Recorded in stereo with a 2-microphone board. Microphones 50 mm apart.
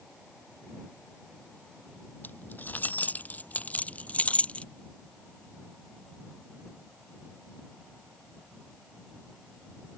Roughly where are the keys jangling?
Left.